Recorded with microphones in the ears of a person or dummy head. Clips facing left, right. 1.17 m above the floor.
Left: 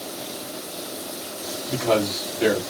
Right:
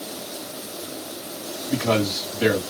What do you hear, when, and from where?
1.7 s a man speaking: 10° right (ahead or behind), 2.5 m